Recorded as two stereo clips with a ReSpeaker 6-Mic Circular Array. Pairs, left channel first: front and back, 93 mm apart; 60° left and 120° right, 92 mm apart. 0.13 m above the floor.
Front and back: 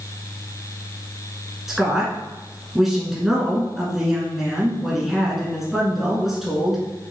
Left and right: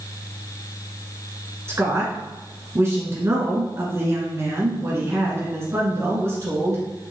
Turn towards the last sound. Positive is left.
turn(degrees=-95)